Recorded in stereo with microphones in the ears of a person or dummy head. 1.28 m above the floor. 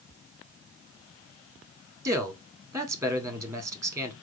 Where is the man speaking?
20° right (ahead or behind), 1.3 m.